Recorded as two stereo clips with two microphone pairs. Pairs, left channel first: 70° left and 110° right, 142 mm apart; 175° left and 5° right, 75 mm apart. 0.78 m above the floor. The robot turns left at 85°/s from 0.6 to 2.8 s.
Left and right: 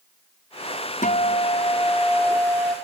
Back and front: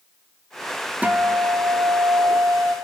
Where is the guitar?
65° left, 2.0 m; by 2.8 s 85° right, 2.0 m.